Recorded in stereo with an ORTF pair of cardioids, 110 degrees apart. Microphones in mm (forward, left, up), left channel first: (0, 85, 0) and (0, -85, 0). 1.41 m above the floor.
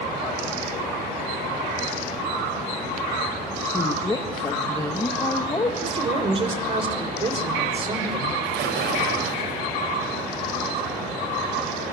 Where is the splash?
70° right, 8 m.